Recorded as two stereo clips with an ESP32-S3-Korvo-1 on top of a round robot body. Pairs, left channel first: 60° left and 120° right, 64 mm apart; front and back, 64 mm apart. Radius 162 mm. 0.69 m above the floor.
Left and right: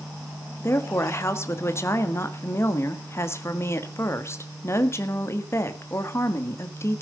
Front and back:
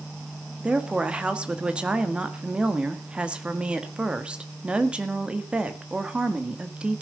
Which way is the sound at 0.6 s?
105° left.